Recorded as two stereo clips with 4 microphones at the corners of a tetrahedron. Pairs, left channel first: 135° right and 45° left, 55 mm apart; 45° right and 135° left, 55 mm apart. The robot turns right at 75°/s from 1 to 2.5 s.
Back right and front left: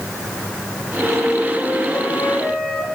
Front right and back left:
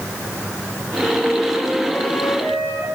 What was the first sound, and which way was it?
A flute, 175° right.